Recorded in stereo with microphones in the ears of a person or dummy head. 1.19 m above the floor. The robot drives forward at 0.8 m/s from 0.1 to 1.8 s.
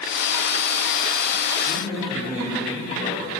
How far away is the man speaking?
About 4.5 m.